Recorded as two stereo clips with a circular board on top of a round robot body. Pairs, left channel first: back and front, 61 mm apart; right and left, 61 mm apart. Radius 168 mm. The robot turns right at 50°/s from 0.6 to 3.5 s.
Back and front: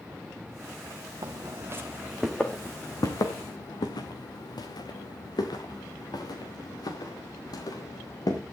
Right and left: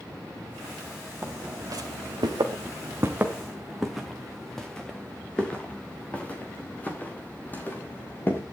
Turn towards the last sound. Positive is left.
turn(degrees=-155)